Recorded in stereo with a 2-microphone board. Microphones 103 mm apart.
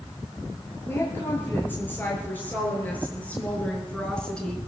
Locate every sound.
0.9 s a woman speaking: 20° left (ahead or behind), 5.5 m; by 4.6 s 5° left (ahead or behind), 3 m